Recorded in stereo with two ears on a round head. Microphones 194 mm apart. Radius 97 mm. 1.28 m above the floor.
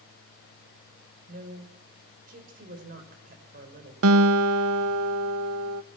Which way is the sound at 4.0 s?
70° right (ahead or behind).